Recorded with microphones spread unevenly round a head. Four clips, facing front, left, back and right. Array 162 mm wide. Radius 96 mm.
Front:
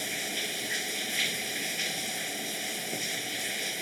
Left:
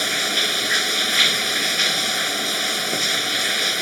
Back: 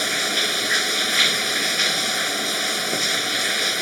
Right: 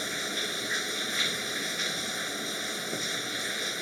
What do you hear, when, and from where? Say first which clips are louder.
0.0 s running water: left 9 dB, back 11 dB; 160° left